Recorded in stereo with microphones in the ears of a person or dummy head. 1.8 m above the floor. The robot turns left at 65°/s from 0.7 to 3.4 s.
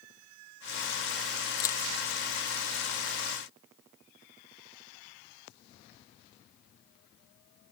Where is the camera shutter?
25° left (ahead or behind); by 1.8 s 10° left (ahead or behind).